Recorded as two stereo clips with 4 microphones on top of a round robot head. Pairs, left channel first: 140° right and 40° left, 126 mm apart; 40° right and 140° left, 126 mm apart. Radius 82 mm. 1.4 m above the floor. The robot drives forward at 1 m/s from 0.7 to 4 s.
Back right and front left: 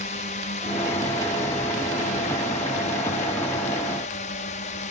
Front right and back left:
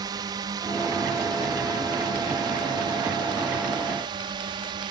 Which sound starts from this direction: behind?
A drone, at 0.0 s.